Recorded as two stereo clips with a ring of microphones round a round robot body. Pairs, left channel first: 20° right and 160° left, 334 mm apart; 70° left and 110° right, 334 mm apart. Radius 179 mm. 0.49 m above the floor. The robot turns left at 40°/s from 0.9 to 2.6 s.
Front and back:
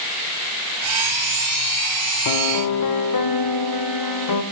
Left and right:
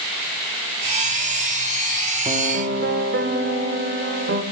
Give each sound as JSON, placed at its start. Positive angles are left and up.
{"t": 2.2, "sound": "a piano", "azimuth_deg": -40, "distance_m": 0.9}